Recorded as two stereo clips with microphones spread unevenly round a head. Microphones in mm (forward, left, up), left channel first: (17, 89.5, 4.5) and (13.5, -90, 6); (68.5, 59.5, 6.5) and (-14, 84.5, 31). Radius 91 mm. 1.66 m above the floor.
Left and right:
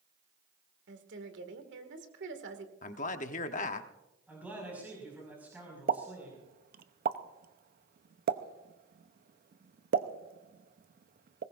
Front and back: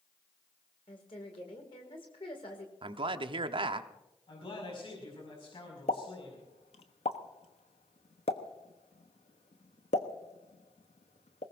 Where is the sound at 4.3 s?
10° right, 5.5 m.